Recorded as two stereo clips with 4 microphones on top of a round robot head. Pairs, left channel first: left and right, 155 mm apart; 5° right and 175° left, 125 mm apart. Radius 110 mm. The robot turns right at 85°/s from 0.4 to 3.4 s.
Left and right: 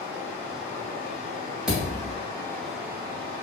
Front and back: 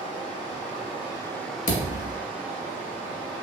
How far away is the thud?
About 0.8 m.